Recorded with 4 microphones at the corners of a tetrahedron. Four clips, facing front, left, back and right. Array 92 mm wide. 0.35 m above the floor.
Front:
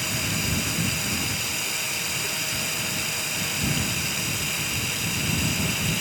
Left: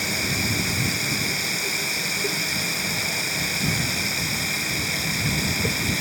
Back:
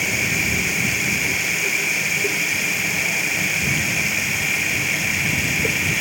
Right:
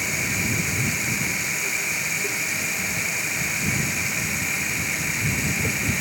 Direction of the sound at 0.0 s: 160° left.